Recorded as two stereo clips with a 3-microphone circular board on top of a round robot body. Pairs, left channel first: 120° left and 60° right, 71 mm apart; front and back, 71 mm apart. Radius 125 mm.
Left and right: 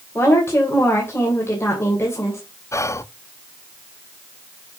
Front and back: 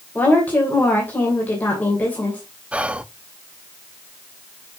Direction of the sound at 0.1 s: 70° left.